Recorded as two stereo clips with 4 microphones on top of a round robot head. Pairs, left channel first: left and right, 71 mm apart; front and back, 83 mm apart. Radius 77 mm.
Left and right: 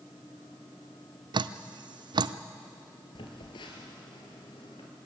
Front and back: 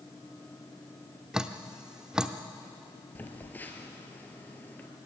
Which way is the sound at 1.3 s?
100° right.